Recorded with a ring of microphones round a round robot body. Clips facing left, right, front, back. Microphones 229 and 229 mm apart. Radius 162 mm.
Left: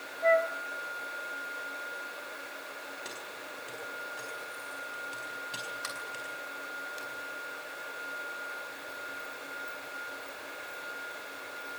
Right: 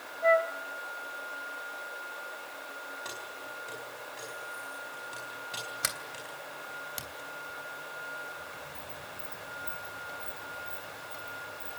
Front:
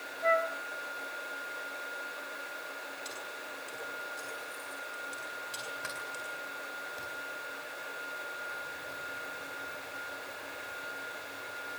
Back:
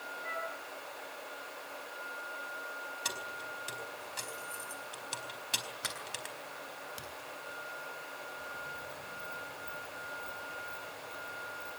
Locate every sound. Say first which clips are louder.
0.2 s a flute: even, front 14 dB; 5° right, 2 m
3.0 s keys jangling: even, even; 175° left, 4 m
5.8 s a sliding door: even, front 1 dB; 115° right, 3 m